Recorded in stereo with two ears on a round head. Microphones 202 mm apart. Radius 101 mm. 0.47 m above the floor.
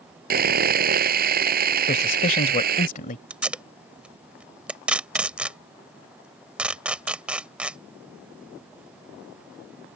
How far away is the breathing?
No breathing in this recording.